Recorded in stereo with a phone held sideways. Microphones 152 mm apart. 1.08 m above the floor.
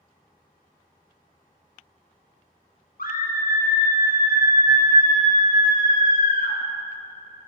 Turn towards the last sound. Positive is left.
turn(degrees=70)  # may be behind; listen again after turning